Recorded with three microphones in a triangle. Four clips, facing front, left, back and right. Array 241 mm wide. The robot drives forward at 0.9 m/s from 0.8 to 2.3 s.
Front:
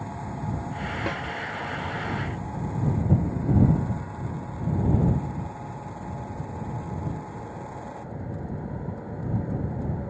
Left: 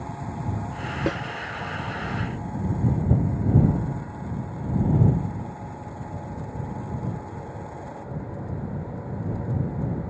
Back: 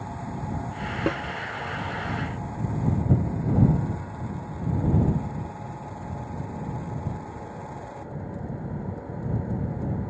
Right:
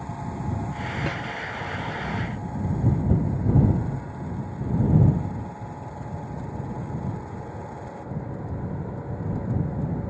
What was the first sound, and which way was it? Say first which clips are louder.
A snare drum: left 7 dB, back 6 dB; 140° left.